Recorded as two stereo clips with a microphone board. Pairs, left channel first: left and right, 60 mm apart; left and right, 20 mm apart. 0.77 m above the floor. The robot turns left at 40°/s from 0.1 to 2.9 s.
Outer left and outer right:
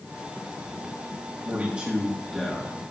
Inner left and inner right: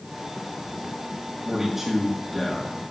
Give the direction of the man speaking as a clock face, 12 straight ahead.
5 o'clock.